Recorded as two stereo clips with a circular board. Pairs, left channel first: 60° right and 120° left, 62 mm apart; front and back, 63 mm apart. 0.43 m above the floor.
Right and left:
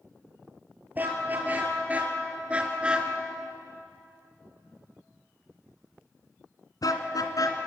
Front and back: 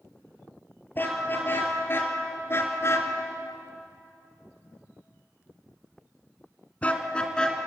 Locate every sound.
0.9 s a car horn: 60° left, 4 m; by 7.6 s 75° right, 2.5 m